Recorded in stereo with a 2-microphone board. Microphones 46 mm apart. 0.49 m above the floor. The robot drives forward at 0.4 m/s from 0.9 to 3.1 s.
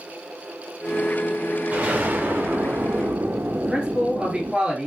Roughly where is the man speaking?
Right.